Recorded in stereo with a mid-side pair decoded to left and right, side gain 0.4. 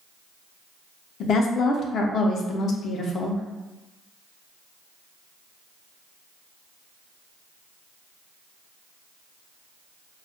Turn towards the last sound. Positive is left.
turn(degrees=70)